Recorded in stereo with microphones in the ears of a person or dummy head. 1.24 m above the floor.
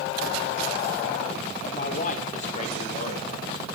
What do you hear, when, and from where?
1.6 s a man speaking: 40° left (ahead or behind), 0.6 m; by 3.6 s 35° left (ahead or behind), 1.9 m